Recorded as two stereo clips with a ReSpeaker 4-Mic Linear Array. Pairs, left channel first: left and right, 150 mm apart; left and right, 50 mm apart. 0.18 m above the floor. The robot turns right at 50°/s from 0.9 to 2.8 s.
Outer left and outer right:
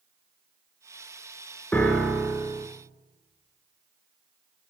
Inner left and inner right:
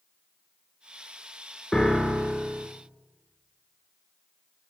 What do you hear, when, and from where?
1.7 s a piano: 170° left, 1.3 m; by 2.7 s 145° right, 1.3 m